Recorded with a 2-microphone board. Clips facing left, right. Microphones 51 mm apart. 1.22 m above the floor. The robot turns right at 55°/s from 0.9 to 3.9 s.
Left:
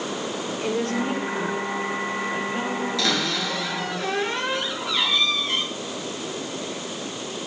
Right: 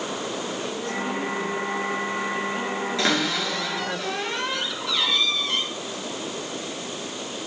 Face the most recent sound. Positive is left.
turn(degrees=25)